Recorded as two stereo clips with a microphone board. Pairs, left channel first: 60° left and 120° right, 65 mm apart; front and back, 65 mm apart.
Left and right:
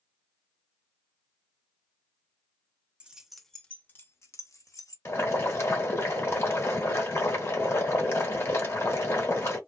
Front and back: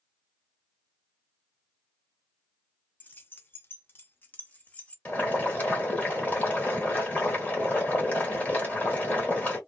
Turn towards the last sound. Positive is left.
turn(degrees=55)